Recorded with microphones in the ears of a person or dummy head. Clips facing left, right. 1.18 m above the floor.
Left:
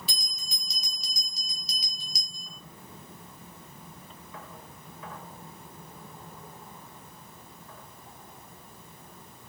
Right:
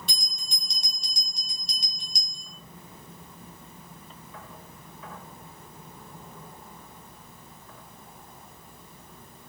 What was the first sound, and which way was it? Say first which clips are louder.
A bell: right 1 dB; 5° left (ahead or behind).